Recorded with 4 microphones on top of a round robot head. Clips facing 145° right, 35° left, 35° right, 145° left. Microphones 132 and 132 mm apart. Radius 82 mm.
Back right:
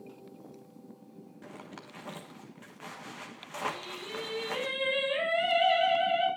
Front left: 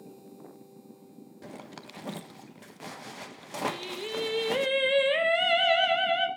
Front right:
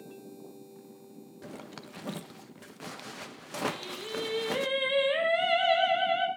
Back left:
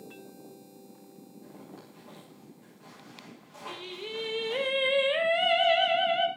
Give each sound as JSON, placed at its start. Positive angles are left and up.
{"t": 1.4, "sound": "a zipper", "azimuth_deg": -20, "distance_m": 1.3}
{"t": 3.7, "sound": "singing", "azimuth_deg": 65, "distance_m": 2.5}